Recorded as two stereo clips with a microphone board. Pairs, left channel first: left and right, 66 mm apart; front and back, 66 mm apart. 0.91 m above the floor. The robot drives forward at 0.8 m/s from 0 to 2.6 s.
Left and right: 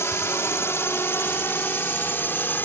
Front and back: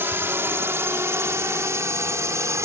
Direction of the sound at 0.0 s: 130° left.